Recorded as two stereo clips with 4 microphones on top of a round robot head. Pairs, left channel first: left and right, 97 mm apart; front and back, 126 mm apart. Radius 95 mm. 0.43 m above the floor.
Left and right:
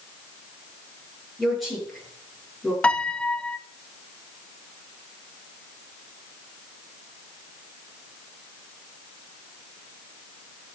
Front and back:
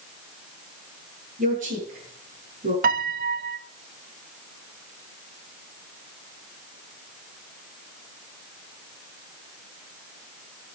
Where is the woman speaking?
Straight behind, 8 m; by 2.7 s 175° right, 8 m.